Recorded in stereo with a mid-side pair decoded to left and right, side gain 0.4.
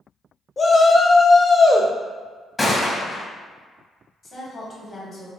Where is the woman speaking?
50° left, 1.2 m.